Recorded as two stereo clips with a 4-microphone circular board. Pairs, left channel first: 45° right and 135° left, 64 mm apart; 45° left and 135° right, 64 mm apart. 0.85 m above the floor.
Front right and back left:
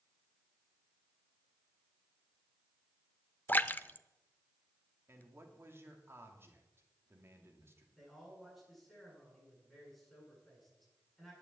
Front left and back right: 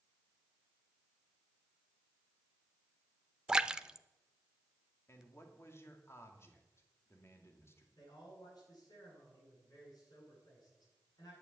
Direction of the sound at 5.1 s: 90° left.